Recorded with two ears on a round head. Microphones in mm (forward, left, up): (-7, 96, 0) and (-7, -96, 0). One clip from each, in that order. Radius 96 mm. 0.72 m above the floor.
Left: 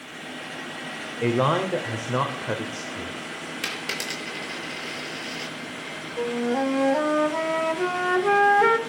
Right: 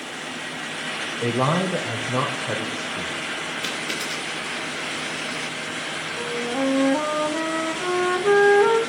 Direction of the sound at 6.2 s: 70° left (ahead or behind).